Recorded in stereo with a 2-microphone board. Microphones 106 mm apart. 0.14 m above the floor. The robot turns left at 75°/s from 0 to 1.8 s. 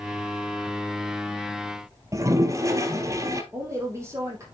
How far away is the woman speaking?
About 4 m.